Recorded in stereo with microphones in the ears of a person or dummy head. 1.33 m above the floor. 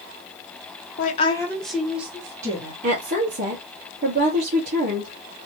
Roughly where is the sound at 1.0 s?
Left.